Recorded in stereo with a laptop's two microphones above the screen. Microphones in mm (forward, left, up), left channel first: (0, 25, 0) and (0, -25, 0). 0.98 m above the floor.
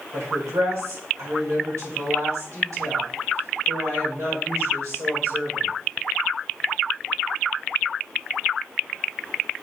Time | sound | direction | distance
0.1 | a woman speaking | 80° right | 4.5 m